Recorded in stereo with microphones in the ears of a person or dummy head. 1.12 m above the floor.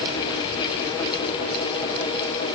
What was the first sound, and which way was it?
Only background noise.